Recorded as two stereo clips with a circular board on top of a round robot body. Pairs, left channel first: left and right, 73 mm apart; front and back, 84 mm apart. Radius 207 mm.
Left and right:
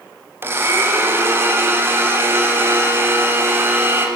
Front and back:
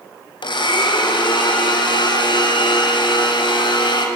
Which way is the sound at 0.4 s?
30° right.